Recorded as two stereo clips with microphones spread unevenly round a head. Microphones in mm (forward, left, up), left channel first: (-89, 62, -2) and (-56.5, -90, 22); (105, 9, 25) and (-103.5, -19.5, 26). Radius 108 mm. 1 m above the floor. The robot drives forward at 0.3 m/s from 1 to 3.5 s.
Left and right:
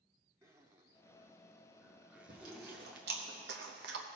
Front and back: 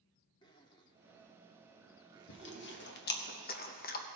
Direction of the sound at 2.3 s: 25° right.